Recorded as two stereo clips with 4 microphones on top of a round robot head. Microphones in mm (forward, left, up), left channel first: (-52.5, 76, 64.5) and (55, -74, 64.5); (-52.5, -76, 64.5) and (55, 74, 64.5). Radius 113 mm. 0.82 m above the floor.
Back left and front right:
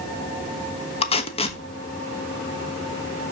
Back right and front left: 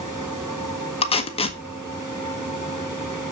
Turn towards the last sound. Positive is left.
turn(degrees=180)